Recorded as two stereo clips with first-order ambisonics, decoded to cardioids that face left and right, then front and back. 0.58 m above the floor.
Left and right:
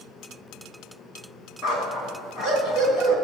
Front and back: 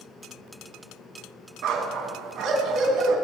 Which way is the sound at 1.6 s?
140° left.